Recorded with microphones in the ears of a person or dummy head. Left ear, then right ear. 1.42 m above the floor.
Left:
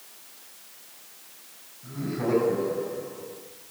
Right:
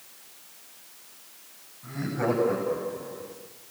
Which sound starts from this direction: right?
Laughter, at 1.8 s.